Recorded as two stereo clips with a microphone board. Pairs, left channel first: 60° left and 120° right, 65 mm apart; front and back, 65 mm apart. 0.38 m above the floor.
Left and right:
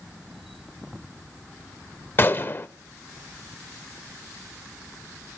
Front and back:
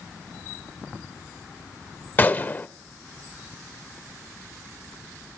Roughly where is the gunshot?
Ahead left.